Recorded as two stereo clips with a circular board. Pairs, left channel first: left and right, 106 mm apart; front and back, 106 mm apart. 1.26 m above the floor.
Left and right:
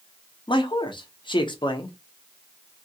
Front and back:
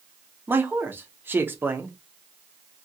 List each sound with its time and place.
0.5 s a man speaking: 115° left, 0.7 m